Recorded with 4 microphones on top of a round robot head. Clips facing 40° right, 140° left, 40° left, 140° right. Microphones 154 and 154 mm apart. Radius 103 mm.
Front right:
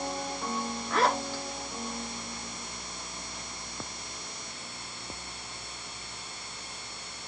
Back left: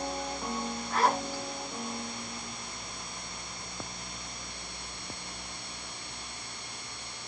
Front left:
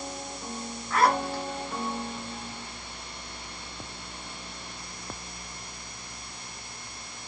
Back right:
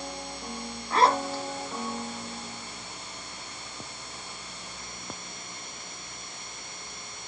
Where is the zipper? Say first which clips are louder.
Front right 1 dB, back right 1 dB; 75° right, 1.5 m.